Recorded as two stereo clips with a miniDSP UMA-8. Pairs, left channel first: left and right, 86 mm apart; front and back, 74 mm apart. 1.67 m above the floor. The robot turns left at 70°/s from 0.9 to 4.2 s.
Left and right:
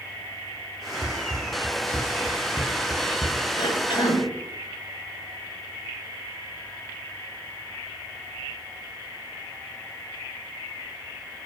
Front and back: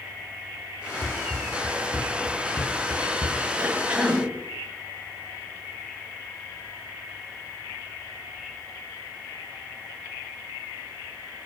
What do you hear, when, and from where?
1.0 s running footsteps: 85° right, 2.5 m; by 3.4 s 175° right, 2.5 m
3.6 s a cough: 125° left, 8 m; by 4.2 s 80° left, 8 m